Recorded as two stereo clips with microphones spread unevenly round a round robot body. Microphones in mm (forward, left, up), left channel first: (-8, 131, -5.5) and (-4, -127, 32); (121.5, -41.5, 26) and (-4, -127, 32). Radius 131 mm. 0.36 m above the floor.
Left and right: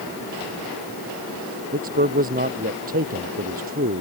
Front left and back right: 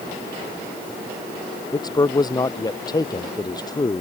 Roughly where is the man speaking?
Ahead right.